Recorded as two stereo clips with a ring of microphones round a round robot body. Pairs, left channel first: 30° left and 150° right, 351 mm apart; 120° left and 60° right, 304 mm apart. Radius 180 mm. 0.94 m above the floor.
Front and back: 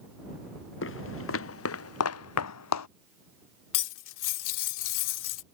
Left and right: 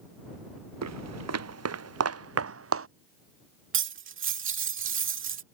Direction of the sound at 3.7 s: 10° right.